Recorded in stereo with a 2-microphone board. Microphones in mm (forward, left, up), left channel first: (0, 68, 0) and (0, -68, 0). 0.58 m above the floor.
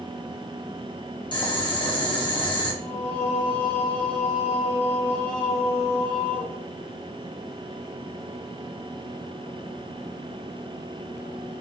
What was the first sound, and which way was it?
Boiling, 35° left (ahead or behind).